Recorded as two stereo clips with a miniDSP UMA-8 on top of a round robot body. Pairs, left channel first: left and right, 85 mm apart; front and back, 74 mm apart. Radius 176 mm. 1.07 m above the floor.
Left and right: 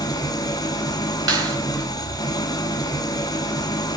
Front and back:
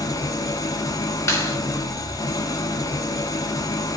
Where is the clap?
45° right, 5.5 m.